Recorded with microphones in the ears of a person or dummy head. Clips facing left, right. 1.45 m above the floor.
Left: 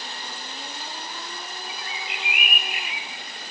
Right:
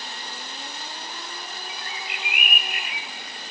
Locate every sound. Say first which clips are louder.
1.7 s a bird: left 1 dB; 30° right (ahead or behind), 0.6 m